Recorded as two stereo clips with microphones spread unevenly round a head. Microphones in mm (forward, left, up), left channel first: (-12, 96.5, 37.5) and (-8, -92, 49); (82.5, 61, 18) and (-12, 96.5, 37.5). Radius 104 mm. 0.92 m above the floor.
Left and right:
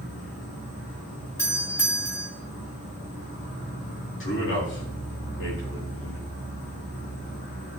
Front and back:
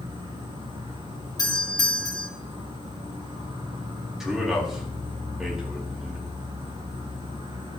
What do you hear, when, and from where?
0.0 s an insect: 125° left, 6 m
1.4 s a doorbell: 15° left, 2.5 m
4.2 s a man speaking: 70° left, 3.5 m